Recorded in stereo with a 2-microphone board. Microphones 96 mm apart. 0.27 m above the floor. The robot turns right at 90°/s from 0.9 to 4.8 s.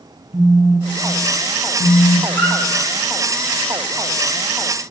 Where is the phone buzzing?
35° right, 0.6 m; by 2.2 s 80° left, 0.6 m.